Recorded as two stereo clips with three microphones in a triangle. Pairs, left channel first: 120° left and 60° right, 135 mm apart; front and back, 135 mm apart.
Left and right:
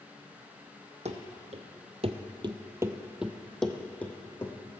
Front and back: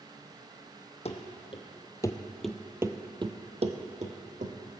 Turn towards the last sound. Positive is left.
turn(degrees=-170)